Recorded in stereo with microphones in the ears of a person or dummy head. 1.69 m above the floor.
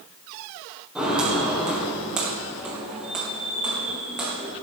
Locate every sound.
0.9 s footsteps: 10° right (ahead or behind), 3.5 m